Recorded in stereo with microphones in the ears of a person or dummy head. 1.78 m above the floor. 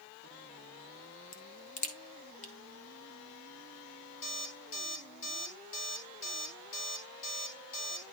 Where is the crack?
40° left (ahead or behind), 1.4 m.